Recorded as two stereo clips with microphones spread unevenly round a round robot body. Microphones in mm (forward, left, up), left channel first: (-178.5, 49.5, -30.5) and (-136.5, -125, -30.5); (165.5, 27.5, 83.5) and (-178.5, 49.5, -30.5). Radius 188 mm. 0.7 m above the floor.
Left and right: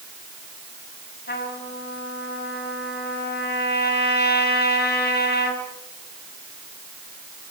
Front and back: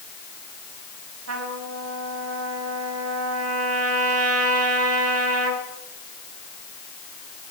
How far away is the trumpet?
About 5.5 m.